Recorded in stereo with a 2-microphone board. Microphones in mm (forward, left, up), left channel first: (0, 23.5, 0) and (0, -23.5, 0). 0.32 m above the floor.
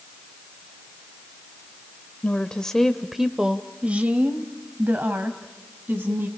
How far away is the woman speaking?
About 0.9 m.